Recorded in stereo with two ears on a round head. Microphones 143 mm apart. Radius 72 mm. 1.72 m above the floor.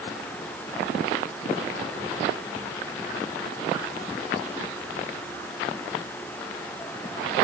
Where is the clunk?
No clunk in this recording.